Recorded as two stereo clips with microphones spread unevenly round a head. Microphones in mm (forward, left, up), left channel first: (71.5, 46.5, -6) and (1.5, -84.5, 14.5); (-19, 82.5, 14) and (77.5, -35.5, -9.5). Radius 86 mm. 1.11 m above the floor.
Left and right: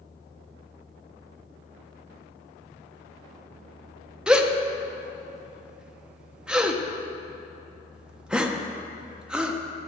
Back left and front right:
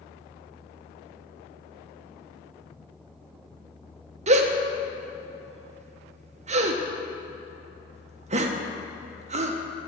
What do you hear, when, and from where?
4.3 s a gasp: 30° right, 0.6 m